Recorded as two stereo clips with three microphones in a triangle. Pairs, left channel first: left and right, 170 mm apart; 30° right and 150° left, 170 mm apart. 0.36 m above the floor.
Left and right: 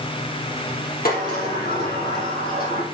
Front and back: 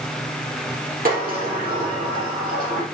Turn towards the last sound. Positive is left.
turn(degrees=115)